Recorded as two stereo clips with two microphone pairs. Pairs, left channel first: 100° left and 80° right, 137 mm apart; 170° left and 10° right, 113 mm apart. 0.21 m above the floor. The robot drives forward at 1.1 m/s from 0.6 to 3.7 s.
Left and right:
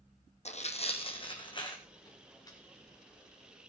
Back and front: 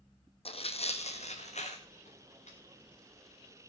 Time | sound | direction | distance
0.5 | tearing paper | 135° left | 1.3 m